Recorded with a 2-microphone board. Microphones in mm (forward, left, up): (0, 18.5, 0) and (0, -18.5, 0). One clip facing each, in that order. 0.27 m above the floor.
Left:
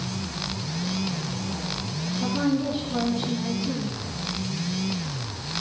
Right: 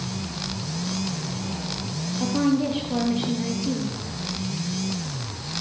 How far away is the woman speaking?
About 5 m.